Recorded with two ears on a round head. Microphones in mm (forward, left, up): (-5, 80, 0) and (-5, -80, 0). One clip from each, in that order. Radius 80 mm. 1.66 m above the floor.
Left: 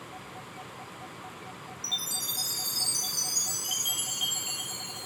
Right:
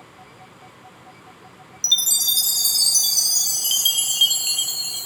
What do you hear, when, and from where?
1.8 s a chime: 70° right (ahead or behind), 0.7 m